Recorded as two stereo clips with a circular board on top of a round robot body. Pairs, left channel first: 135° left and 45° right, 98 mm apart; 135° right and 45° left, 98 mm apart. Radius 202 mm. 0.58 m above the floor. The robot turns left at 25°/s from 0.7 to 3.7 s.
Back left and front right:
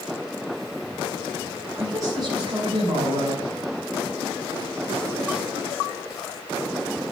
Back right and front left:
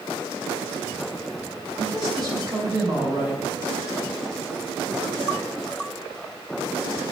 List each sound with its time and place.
1.8 s a man speaking: 15° left, 4.5 m; by 3.4 s 25° right, 4.5 m